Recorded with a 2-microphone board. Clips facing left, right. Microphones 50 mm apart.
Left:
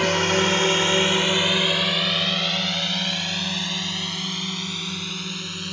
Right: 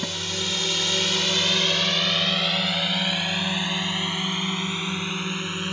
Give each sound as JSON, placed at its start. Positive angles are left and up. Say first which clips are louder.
{"t": 0.0, "sound": "a drone", "louder": "left 10 dB", "side_deg": 60}